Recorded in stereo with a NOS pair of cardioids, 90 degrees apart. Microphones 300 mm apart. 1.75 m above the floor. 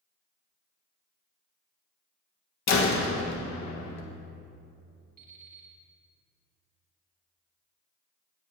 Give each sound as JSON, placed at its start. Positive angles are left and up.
{"t": 2.7, "sound": "a door slam", "azimuth_deg": 65, "distance_m": 1.8}
{"t": 5.2, "sound": "an alarm clock", "azimuth_deg": -30, "distance_m": 3.5}